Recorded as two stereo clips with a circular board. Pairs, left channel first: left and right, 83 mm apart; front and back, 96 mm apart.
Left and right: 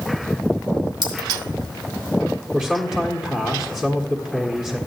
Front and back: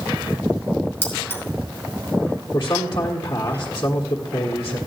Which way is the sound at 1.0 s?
65° right.